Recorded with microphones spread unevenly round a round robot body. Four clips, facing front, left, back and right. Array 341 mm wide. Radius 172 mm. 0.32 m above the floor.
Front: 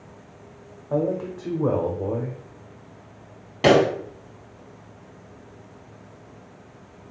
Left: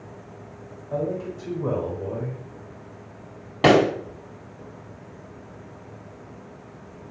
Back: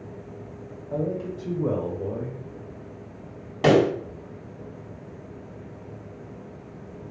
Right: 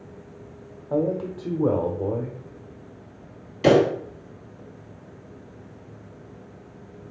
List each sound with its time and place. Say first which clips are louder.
0.9 s a man speaking: right 3 dB, front 4 dB; 40° right, 0.9 m
3.6 s a pop: even, front 2 dB; 80° left, 1.2 m